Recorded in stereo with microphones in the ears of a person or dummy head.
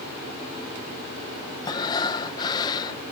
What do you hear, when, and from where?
1.6 s breathing: 25° left (ahead or behind)